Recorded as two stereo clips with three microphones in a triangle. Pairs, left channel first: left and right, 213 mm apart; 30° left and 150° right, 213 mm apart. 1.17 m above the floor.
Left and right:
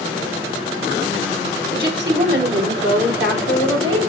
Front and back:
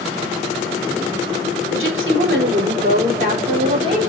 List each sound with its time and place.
1.7 s a woman speaking: 130° right, 3.5 m; by 4.0 s 80° right, 3.5 m